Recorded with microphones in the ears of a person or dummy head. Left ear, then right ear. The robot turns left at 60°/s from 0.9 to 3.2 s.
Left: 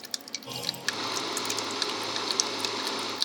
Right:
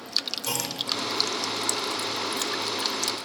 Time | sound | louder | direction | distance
0.5 | a clunk | right 5 dB | 60° right (ahead or behind) | 3 m